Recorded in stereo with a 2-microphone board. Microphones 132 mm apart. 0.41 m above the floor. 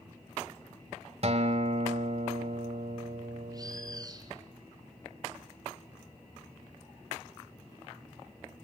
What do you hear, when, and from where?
1.2 s a guitar: 55° right (ahead or behind), 1.2 m
3.5 s a bird: 30° right (ahead or behind), 1.5 m